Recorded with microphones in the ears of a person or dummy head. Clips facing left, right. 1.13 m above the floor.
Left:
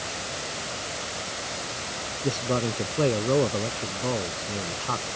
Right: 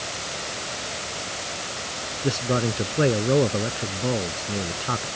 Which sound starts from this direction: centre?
A man speaking, at 2.2 s.